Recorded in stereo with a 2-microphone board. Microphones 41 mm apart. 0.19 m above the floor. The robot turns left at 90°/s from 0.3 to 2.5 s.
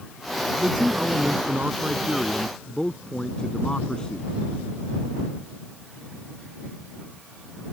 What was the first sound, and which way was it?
A man speaking, 30° right.